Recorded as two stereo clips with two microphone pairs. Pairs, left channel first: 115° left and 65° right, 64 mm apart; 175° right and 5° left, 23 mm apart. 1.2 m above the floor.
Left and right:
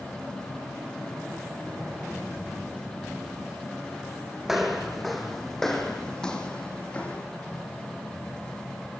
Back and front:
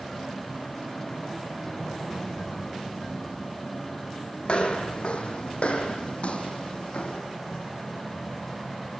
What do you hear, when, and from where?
4.4 s footsteps: 150° right, 3 m; by 7.2 s 175° right, 3 m